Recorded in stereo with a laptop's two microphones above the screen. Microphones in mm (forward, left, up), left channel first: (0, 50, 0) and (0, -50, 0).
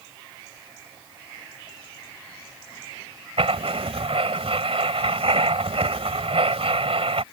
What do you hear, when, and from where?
3.4 s writing: 75° right (ahead or behind)